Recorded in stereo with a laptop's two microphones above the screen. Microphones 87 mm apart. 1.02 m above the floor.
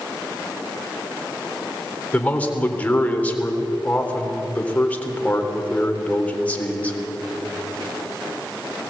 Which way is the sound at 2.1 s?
15° left (ahead or behind).